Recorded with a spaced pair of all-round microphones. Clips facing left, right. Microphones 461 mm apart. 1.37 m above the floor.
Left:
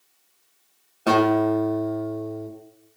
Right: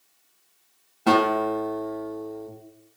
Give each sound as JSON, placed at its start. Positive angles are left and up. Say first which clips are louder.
{"t": 1.1, "sound": "a guitar", "louder": "left 3 dB", "side_deg": -15, "distance_m": 1.4}